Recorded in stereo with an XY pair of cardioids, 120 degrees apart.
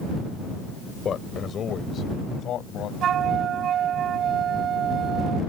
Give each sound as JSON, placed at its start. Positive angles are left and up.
{"t": 1.1, "sound": "a man speaking", "azimuth_deg": 40}
{"t": 3.0, "sound": "a flute", "azimuth_deg": -55}